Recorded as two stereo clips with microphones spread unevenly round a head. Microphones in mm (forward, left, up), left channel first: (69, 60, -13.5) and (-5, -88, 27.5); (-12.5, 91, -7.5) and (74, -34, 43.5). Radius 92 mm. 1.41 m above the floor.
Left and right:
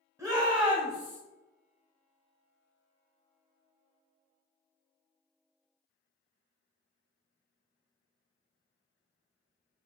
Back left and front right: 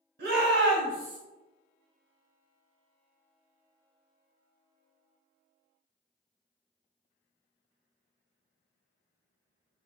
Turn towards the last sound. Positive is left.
turn(degrees=-5)